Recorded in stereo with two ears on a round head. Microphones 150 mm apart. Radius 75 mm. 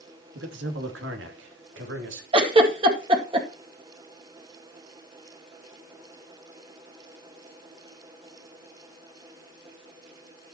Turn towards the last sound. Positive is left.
turn(degrees=-30)  # may be behind; listen again after turning